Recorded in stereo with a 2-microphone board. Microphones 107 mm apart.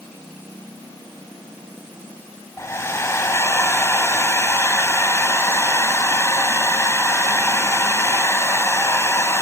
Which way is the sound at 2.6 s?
25° left (ahead or behind).